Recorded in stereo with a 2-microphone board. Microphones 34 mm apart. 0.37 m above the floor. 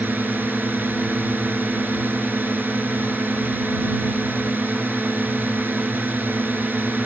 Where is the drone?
75° right (ahead or behind).